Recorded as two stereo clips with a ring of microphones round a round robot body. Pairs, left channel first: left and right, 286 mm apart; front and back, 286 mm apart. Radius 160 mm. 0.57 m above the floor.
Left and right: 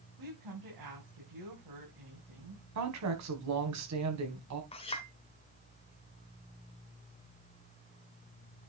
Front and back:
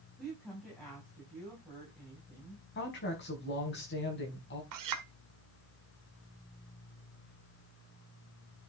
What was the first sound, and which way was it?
A woman speaking, 90° right.